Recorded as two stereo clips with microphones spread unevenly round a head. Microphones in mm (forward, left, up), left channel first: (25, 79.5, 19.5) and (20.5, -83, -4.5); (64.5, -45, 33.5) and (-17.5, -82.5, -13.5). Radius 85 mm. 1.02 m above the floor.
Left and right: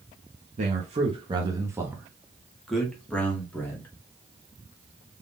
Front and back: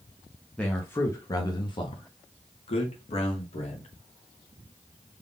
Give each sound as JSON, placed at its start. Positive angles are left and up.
{"t": 0.6, "sound": "a man speaking", "azimuth_deg": -75, "distance_m": 1.0}